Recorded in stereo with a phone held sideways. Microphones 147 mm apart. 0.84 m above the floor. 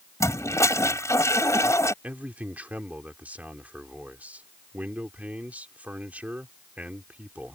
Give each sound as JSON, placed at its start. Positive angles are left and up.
{"t": 0.2, "sound": "a toilet flushing", "side_deg": 20}
{"t": 2.0, "sound": "a man speaking", "side_deg": -10}